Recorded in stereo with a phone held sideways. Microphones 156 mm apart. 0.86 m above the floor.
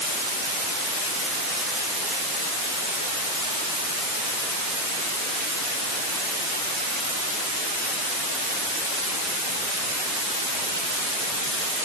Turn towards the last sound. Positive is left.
No sound to turn to.